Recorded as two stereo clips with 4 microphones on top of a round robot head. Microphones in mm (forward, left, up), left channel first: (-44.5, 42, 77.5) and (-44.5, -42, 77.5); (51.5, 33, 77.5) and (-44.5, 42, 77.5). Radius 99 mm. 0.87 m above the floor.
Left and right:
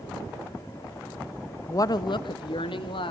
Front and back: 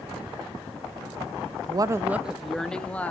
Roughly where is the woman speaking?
Behind left.